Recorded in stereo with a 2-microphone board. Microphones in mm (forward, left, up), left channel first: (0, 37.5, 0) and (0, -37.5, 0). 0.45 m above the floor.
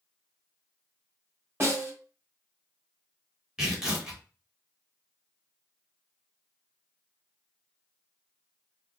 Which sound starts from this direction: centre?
Tearing paper, at 3.6 s.